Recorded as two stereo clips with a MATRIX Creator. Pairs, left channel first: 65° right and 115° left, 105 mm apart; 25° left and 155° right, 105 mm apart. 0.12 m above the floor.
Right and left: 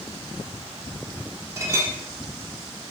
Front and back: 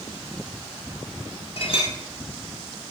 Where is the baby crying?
No baby crying in this recording.